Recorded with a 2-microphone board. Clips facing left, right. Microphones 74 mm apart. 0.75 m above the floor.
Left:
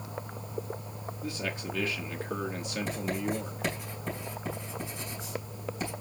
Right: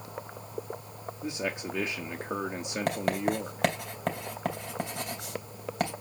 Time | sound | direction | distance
1.2 | a man speaking | 20° right (ahead or behind) | 1.3 m
2.9 | writing | 75° right (ahead or behind) | 3 m